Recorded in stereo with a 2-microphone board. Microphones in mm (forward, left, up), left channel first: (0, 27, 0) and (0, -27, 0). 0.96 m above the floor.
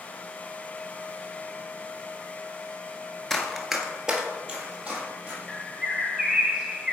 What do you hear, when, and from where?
3.3 s running footsteps: 5° left (ahead or behind), 0.9 m; by 5.4 s 25° right (ahead or behind), 2.5 m
5.5 s a bird: 10° right (ahead or behind), 0.8 m